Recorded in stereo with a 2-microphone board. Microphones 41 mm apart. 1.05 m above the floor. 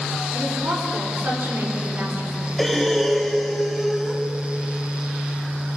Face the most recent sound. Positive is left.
turn(degrees=0)  # may be behind; listen again after turning